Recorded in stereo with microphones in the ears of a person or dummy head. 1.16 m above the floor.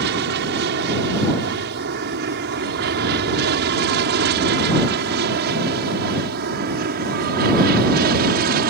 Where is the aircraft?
60° right (ahead or behind); by 8.7 s 55° right (ahead or behind).